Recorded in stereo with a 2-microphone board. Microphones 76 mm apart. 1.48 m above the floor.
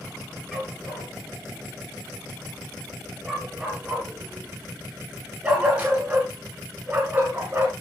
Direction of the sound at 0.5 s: 5° left (ahead or behind).